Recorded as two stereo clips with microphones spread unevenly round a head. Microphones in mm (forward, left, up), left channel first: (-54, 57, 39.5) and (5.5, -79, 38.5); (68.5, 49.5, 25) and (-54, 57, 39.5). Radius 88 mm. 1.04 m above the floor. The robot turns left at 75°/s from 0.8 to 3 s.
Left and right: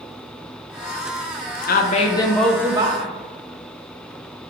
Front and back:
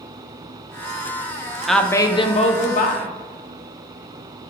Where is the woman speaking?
85° left, 0.6 m; by 3.1 s 15° right, 0.6 m.